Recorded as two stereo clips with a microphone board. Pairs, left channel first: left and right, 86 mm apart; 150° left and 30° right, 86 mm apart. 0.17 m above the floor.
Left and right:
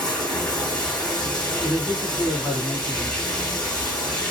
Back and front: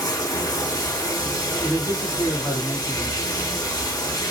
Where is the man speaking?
5° right, 1.6 m.